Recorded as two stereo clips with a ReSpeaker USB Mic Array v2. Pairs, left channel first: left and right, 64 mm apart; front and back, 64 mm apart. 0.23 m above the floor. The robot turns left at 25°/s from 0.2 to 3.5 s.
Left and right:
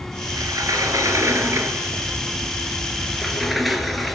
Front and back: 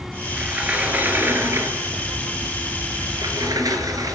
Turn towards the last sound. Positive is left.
turn(degrees=180)